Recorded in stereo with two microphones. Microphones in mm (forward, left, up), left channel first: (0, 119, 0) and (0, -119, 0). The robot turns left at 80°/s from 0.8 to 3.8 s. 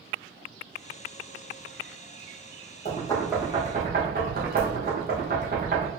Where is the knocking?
35° left (ahead or behind), 1.3 m; by 5.9 s 40° right (ahead or behind), 1.3 m.